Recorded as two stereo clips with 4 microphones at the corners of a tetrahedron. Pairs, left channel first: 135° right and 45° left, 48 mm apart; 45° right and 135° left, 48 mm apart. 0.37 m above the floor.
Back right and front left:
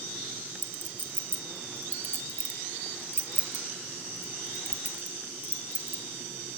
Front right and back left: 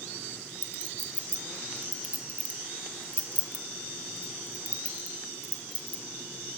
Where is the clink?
75° left, 0.9 m.